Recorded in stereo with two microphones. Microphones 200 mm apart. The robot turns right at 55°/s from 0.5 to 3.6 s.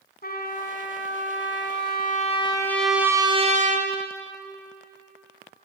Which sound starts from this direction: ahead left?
A trumpet, at 0.2 s.